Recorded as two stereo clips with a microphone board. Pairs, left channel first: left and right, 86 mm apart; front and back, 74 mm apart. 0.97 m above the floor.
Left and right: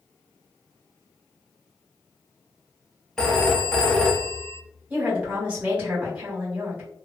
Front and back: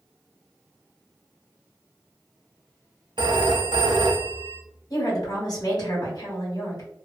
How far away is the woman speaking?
About 1.8 m.